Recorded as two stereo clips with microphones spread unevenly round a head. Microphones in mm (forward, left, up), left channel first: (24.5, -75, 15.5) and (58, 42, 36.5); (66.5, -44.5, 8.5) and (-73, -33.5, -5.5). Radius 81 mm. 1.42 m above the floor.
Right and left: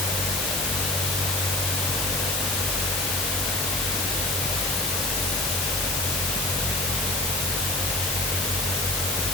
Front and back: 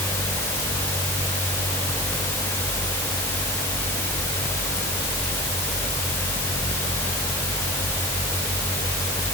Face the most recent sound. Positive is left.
No sound to turn to.